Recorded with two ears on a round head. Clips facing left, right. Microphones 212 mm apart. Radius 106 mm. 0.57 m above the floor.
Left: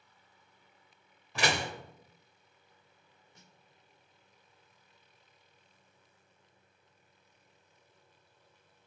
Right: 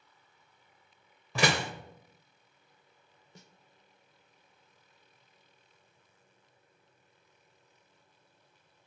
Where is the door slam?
70° right (ahead or behind), 1.4 m.